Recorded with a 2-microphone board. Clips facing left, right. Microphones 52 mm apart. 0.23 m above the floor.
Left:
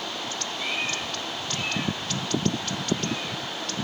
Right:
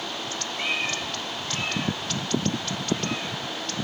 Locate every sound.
0.6 s a cat meowing: 70° right (ahead or behind), 3 m; by 3.4 s 80° right, 7 m